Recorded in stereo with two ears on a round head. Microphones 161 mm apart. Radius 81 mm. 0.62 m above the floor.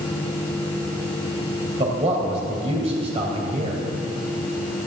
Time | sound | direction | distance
1.8 | a man speaking | 35° right (ahead or behind) | 3 m